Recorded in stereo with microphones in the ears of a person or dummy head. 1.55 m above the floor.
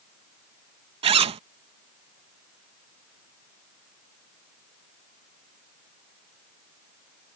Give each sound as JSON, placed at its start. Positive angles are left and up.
{"t": 1.0, "sound": "a zipper", "side_deg": -30}